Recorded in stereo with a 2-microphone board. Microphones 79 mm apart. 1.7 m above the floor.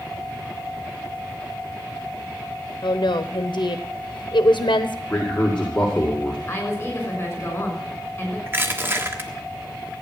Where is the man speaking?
15° left (ahead or behind), 2 m.